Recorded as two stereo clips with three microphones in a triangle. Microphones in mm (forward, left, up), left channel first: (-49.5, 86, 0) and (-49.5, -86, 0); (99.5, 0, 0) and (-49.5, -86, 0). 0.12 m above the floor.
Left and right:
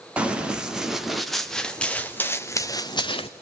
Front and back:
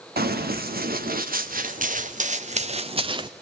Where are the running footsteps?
175° right, 2.5 m; by 3.3 s 150° left, 1.1 m.